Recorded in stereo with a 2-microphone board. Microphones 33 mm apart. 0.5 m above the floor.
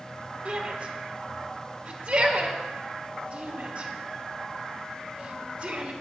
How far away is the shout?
About 1.3 m.